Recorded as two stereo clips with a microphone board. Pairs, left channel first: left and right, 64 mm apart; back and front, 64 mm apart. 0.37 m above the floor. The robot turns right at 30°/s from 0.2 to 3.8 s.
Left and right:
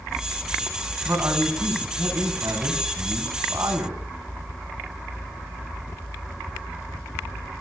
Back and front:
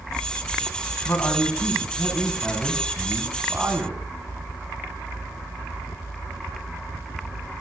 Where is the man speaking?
130° right, 4 m; by 4.0 s 45° right, 4 m.